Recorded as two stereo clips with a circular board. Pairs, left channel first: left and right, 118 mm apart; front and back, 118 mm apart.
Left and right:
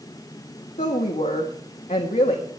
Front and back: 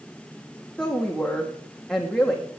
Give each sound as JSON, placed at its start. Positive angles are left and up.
{"t": 0.8, "sound": "a woman speaking", "azimuth_deg": 85, "distance_m": 1.7}